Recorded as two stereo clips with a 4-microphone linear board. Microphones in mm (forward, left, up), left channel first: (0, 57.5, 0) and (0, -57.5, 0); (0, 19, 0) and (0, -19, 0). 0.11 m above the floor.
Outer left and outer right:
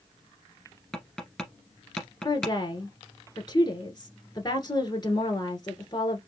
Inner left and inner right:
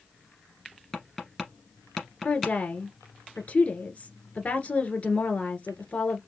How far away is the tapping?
About 1.7 m.